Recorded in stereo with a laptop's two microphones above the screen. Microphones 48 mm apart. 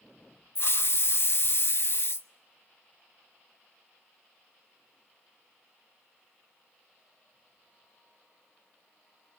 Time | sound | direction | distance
0.6 | a hiss | 55° left (ahead or behind) | 0.7 m